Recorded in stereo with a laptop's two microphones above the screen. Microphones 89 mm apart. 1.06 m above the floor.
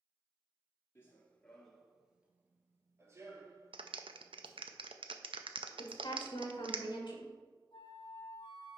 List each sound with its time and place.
0.9 s running footsteps: 25° left (ahead or behind), 1.1 m; by 4.6 s 50° right (ahead or behind), 2 m
3.7 s a clap: 75° right (ahead or behind), 0.5 m
5.8 s a woman speaking: 60° left (ahead or behind), 1.4 m
7.7 s a flute: 70° left (ahead or behind), 1.1 m